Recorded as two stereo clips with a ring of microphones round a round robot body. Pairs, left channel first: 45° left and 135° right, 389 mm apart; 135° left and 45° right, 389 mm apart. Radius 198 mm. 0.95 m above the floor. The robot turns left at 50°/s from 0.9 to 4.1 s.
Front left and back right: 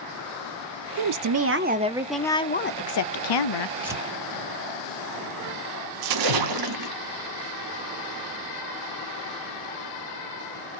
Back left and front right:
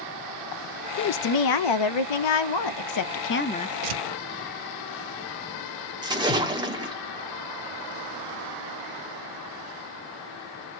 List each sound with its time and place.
1.0 s a woman speaking: 165° right, 0.5 m; by 3.7 s 55° left, 0.5 m
3.8 s tearing paper: 50° right, 0.8 m; by 4.0 s 60° right, 0.8 m
6.0 s a splash: 120° right, 0.6 m